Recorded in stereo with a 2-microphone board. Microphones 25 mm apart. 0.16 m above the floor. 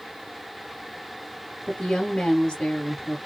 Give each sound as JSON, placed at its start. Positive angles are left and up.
{"t": 1.7, "sound": "a woman speaking", "side_deg": 30, "distance_m": 1.4}